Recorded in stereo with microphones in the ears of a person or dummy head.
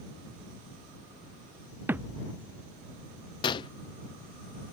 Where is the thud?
10° right (ahead or behind).